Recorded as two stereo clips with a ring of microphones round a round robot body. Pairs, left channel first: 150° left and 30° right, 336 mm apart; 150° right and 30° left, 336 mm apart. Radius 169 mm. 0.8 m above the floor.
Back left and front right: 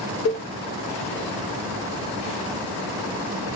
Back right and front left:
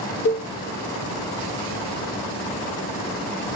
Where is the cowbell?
Straight behind, 1.2 m.